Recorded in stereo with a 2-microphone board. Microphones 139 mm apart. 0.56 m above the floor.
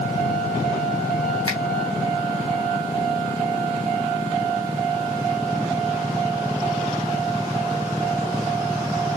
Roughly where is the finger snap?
Left.